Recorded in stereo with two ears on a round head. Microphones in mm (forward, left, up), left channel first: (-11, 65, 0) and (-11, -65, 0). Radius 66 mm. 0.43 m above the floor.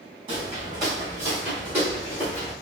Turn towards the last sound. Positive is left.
turn(degrees=-5)  # may be behind; listen again after turning